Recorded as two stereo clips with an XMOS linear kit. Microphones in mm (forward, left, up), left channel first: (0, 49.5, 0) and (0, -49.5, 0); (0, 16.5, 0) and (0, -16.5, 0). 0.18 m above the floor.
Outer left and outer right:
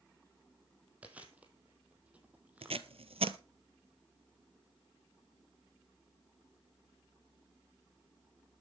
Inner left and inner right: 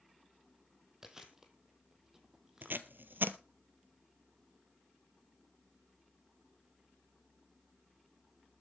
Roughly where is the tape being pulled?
Right.